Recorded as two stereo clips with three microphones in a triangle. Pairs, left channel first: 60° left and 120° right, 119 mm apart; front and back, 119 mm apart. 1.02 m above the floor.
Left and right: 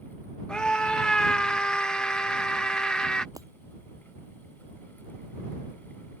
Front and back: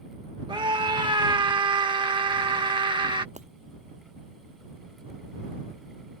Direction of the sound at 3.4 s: Straight behind.